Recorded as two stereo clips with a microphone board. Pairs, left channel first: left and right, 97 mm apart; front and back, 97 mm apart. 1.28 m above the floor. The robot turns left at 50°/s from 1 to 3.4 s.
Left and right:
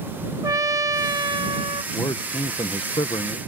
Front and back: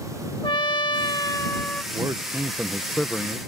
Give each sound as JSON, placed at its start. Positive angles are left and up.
{"t": 0.4, "sound": "a trumpet", "azimuth_deg": -35}
{"t": 1.9, "sound": "a man speaking", "azimuth_deg": 130}